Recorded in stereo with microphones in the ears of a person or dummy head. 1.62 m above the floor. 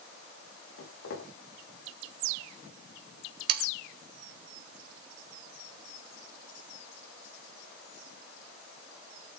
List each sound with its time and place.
0.8 s footsteps: 70° left (ahead or behind), 6.5 m
3.5 s sawing: 45° right (ahead or behind), 0.8 m